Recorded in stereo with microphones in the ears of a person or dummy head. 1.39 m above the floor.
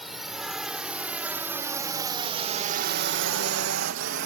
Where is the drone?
Centre (ahead or behind); by 4.3 s 55° right (ahead or behind).